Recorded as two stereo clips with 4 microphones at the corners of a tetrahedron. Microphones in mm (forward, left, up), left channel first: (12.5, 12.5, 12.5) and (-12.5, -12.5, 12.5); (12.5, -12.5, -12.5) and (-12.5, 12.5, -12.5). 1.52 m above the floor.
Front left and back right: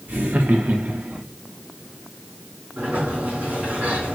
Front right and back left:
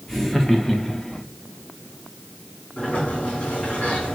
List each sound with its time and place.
0.1 s laughter: 130° right, 1.0 m; by 1.2 s 100° right, 0.5 m
2.8 s a sliding door: 95° right, 3 m